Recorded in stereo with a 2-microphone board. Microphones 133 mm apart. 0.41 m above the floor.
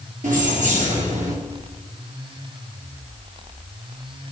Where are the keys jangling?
80° right, 4.5 m; by 1.4 s 75° right (ahead or behind), 4 m.